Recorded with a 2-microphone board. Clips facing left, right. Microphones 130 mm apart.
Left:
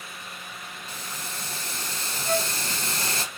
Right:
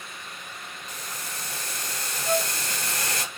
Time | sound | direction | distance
0.9 | boiling | 30° left (ahead or behind) | 2 m
2.2 | a flute | 15° right (ahead or behind) | 2.5 m